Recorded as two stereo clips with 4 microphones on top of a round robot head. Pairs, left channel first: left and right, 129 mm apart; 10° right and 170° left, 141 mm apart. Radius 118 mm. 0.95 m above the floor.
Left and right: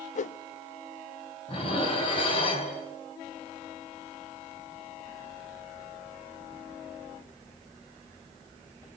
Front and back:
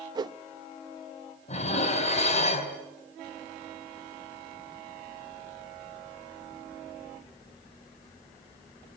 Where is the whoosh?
110° left, 0.5 m.